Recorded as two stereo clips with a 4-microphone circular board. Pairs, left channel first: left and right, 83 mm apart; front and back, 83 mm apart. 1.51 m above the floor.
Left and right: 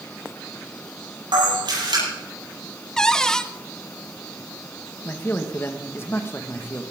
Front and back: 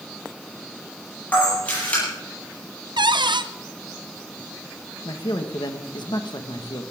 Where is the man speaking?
30° left, 1.6 m.